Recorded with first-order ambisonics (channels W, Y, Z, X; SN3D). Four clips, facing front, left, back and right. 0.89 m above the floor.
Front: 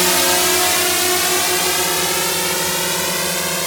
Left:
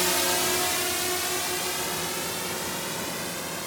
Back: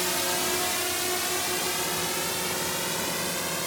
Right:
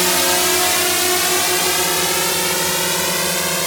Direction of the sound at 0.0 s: 35° right.